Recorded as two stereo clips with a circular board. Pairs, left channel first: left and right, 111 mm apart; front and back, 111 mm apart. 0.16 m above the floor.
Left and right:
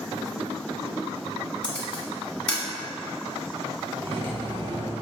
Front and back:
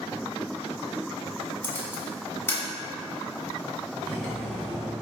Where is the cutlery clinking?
75° right, 1.1 m.